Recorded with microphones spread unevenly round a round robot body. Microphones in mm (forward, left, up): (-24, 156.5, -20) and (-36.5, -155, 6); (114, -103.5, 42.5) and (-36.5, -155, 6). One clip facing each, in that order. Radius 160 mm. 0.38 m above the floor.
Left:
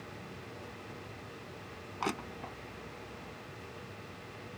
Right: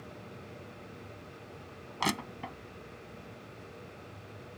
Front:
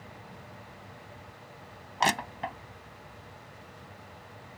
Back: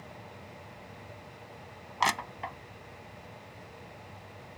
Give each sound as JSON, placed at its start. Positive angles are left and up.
{"t": 2.0, "sound": "crushing", "azimuth_deg": -40}